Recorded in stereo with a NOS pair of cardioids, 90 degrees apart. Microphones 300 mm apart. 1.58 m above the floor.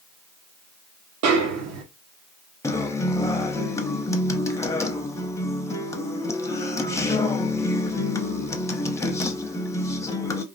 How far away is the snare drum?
About 0.8 m.